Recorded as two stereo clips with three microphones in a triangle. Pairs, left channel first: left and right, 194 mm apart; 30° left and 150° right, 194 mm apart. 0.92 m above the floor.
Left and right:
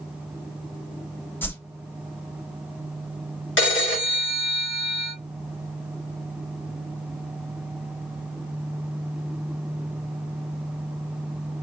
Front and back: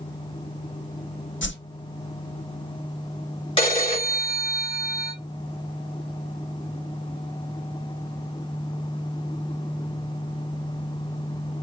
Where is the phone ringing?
95° left, 3.5 m.